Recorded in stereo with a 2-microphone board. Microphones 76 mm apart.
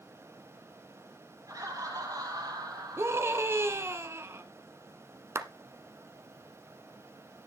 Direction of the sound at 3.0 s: 35° right (ahead or behind).